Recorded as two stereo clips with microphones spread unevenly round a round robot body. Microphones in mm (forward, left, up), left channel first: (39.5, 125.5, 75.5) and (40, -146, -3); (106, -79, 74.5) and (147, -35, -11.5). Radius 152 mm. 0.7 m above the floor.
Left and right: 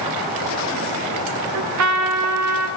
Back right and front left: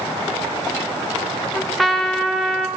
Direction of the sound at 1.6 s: 60° right.